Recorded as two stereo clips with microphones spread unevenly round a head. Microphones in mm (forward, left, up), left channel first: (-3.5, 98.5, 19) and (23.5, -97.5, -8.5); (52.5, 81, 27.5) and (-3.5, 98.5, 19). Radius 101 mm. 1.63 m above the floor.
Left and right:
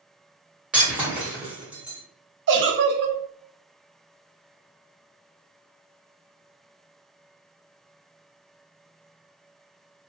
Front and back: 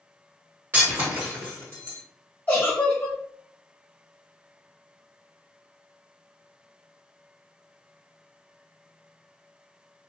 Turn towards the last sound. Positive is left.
turn(degrees=-75)